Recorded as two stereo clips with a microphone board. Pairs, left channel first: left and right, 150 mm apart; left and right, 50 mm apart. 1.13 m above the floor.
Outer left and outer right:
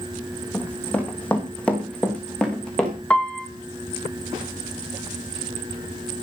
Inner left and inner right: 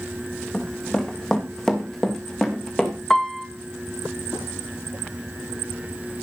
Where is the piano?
5° left (ahead or behind), 1.8 m.